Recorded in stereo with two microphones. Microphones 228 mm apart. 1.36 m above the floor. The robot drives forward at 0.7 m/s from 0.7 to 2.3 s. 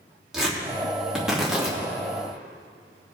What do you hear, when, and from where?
0.3 s tearing paper: centre (ahead or behind), 3 m